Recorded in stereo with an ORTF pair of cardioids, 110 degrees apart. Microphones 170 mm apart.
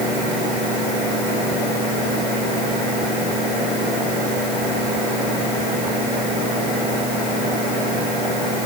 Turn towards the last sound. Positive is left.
No sound to turn to.